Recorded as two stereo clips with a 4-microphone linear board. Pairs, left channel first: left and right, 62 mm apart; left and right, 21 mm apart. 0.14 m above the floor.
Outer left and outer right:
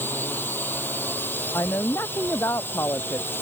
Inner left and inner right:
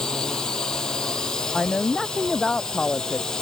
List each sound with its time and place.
0.0 s a drone: 35° left (ahead or behind)
1.5 s a woman speaking: 50° left (ahead or behind)